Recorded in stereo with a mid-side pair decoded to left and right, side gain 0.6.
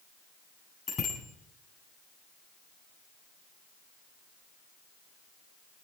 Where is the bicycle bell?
35° left, 9.5 m.